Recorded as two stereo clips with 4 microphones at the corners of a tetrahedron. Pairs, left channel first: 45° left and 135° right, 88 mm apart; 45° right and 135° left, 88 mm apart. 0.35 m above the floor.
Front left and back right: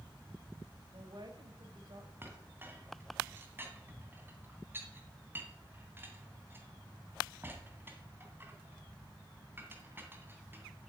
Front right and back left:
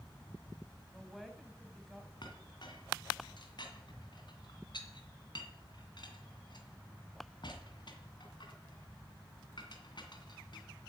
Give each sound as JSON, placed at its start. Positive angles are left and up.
{"t": 0.9, "sound": "a woman speaking", "azimuth_deg": -135, "distance_m": 2.0}
{"t": 2.2, "sound": "a clink", "azimuth_deg": -70, "distance_m": 2.0}